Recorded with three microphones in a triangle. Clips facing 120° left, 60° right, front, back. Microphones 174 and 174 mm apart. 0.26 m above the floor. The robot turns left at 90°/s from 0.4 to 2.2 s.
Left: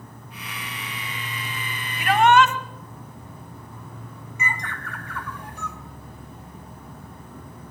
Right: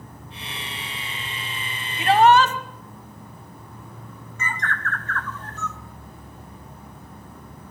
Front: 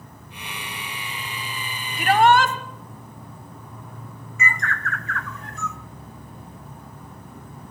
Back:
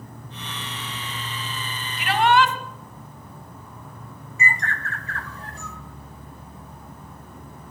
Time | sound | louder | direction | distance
0.0 | an insect | right 1 dB, back 3 dB | 120° right | 7.5 m
2.0 | a shout | right 2 dB, front 2 dB | straight ahead | 1.4 m
4.4 | a bird | right 2 dB, front 1 dB | 175° right | 0.8 m